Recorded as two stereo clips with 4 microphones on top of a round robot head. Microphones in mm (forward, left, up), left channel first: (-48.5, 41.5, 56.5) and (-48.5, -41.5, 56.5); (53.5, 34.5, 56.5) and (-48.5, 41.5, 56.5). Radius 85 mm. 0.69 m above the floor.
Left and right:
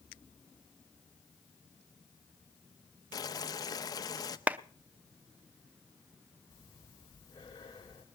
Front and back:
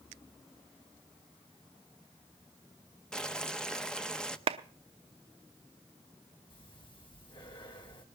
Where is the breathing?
35° left, 4.5 m.